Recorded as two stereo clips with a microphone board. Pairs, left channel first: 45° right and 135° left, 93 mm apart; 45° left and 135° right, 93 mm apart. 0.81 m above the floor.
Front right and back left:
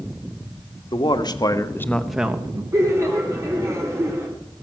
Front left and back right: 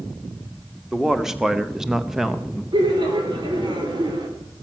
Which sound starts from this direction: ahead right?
A man speaking, at 0.9 s.